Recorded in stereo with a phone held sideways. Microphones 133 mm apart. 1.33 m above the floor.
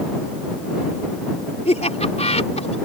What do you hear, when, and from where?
1.6 s laughter: 55° left (ahead or behind)